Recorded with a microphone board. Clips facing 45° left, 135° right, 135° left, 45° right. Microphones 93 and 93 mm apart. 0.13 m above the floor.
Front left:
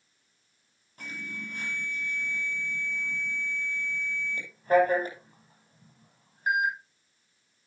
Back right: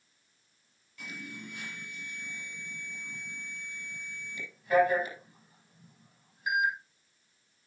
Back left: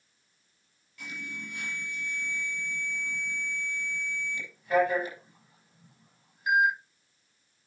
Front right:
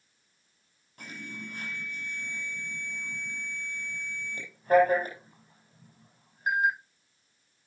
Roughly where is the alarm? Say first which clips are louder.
Front left 3 dB, back left 1 dB; ahead.